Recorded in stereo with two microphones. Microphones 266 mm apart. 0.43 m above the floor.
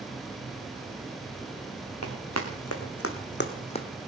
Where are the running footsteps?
80° left, 3 m; by 3.9 s 15° left (ahead or behind), 1.2 m.